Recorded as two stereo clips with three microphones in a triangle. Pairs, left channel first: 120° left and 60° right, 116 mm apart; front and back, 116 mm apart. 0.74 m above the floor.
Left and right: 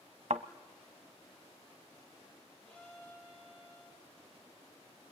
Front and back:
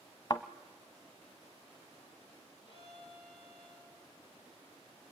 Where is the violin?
40° left, 10 m.